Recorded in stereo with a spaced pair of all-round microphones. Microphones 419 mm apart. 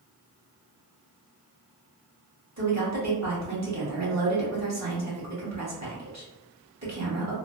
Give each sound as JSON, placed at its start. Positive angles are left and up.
{"t": 2.6, "sound": "a woman speaking", "side_deg": -40, "distance_m": 1.3}